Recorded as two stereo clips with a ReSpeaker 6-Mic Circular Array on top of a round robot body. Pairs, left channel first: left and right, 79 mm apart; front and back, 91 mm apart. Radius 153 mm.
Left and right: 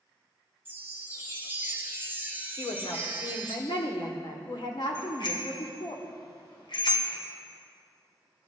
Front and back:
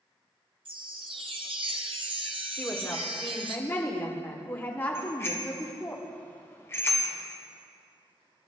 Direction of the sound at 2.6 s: 70° left.